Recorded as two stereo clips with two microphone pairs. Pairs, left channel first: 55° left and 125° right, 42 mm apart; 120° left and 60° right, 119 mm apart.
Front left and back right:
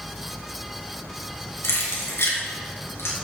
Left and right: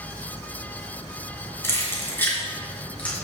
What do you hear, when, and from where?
1.6 s keys jangling: 50° left, 3 m; by 3.1 s 40° left, 4 m